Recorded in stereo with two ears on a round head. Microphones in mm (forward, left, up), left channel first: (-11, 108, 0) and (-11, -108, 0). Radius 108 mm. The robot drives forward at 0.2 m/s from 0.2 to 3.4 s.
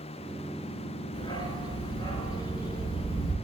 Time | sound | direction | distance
1.1 | a dog barking | 20° left (ahead or behind) | 3 m